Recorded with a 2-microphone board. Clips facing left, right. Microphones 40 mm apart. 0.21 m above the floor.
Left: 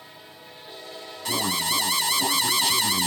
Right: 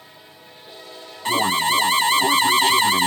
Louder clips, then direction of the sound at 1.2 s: Right 7 dB; 35° right (ahead or behind).